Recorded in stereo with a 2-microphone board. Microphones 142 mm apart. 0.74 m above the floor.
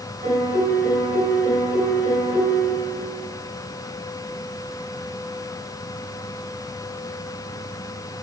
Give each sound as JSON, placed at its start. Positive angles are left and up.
{"t": 0.2, "sound": "a piano", "side_deg": -85, "distance_m": 3.0}